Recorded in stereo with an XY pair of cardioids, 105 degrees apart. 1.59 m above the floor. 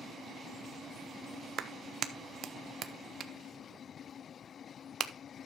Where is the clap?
60° right, 0.8 m.